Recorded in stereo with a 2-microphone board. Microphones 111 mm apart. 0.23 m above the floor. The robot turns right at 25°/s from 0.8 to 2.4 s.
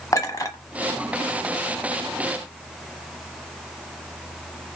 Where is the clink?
30° left (ahead or behind), 1.1 m.